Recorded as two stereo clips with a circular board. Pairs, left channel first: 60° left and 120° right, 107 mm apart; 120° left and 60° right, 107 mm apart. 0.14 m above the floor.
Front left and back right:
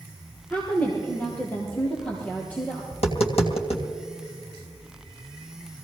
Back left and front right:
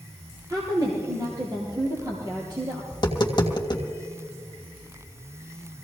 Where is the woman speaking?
15° right, 3 m.